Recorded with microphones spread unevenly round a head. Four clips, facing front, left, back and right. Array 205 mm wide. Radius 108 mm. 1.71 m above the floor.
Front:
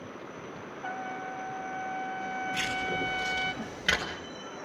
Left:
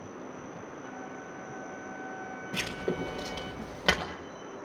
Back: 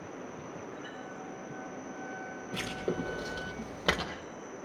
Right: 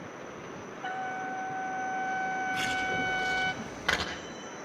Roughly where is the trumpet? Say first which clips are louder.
Right 7 dB, front 6 dB; ahead right.